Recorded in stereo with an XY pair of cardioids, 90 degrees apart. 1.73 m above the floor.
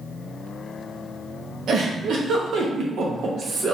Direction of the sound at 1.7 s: 70° right.